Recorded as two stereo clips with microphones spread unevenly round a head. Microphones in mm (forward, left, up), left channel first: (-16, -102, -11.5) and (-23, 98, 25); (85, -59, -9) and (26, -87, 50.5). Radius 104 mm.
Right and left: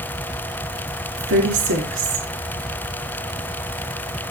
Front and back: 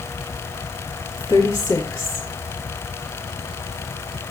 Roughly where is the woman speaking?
Behind left.